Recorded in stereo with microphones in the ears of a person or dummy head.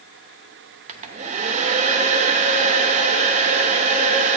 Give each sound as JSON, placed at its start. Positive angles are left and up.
{"t": 0.9, "sound": "a hair dryer", "side_deg": -35, "distance_m": 0.7}